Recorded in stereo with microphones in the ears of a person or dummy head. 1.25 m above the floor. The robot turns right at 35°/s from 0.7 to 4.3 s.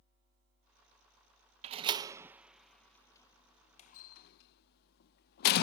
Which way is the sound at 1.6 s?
30° right (ahead or behind).